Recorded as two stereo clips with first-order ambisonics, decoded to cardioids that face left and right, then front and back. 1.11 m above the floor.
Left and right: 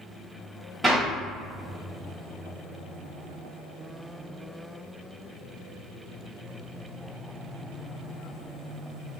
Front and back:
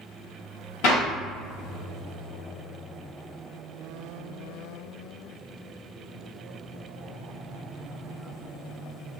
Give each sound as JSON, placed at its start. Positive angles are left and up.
{"t": 0.8, "sound": "a clap", "azimuth_deg": 0, "distance_m": 1.5}